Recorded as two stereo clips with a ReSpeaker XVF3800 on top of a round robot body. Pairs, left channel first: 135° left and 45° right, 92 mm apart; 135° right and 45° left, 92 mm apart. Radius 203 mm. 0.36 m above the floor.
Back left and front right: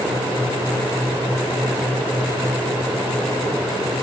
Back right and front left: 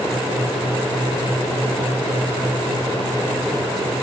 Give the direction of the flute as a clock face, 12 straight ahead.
I don't hear a flute.